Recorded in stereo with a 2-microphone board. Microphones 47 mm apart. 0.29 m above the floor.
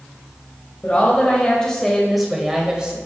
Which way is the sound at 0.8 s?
30° left (ahead or behind).